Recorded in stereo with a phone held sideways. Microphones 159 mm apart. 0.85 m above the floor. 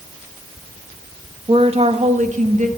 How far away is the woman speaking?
About 0.8 m.